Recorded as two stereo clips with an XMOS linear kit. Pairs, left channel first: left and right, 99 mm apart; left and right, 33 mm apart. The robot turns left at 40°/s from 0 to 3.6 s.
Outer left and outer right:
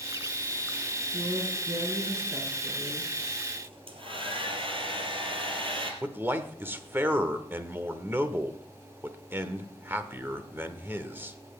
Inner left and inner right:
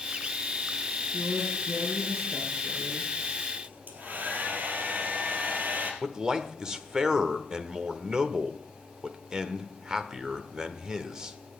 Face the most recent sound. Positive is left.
turn(degrees=-20)  # may be behind; listen again after turning